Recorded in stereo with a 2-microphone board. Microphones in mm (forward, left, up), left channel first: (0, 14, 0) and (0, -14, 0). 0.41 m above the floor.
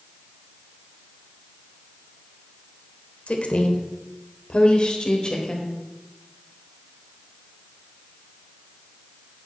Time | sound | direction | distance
3.3 | a woman speaking | 50° left (ahead or behind) | 1.4 m